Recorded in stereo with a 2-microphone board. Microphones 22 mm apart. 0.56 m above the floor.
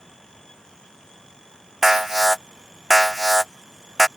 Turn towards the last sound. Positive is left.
turn(degrees=-20)  # may be behind; listen again after turning